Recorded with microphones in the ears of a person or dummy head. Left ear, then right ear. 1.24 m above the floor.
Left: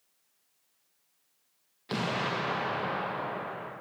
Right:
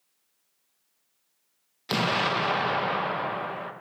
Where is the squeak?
I don't hear a squeak.